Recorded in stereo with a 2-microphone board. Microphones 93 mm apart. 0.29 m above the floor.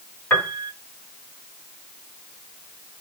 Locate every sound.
0.3 s a piano: 15° left (ahead or behind), 1.7 m